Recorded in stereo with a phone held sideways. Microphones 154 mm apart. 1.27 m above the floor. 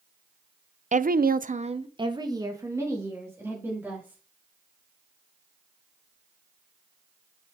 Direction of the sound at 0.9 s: 50° right (ahead or behind).